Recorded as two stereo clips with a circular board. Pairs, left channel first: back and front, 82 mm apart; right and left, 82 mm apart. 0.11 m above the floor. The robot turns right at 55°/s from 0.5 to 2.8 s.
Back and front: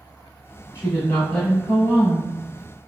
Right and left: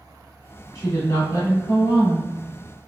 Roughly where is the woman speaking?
Behind right.